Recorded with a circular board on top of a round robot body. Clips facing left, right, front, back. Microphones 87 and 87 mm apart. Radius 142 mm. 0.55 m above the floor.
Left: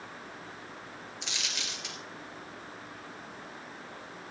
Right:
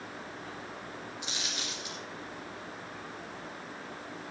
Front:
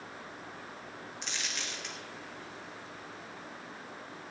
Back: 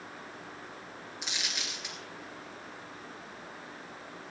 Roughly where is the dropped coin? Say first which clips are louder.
Left 1 dB, back 1 dB; left.